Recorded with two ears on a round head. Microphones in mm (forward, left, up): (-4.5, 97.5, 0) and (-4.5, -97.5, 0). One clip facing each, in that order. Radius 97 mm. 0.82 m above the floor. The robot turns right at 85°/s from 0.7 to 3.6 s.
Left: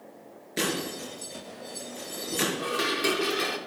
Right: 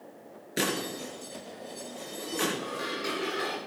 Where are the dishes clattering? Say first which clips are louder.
Left 6 dB; 65° left, 1.5 m; by 3.6 s 150° left, 1.5 m.